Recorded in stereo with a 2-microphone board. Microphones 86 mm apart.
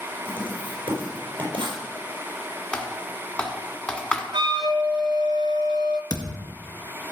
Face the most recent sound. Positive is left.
turn(degrees=50)  # may be behind; listen again after turning